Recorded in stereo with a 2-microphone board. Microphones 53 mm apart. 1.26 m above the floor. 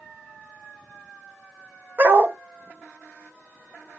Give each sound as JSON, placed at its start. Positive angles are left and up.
{"t": 2.0, "sound": "a dog barking", "side_deg": -45, "distance_m": 1.2}